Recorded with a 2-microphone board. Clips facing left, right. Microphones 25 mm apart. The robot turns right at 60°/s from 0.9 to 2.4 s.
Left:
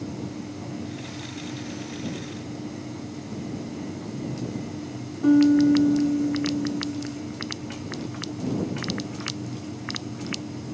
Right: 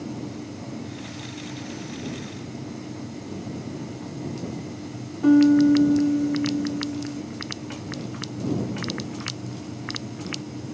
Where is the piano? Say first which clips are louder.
Right 1 dB; 15° right (ahead or behind).